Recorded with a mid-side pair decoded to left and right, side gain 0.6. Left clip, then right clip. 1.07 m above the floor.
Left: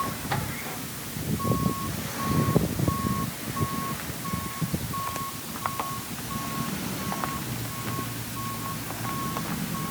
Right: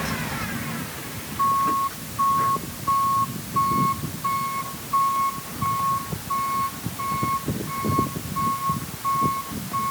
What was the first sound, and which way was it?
Only background noise.